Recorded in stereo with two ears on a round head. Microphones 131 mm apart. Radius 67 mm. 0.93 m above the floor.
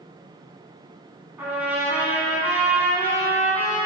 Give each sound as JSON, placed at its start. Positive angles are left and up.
{"t": 1.4, "sound": "a trumpet", "side_deg": -15, "distance_m": 4.0}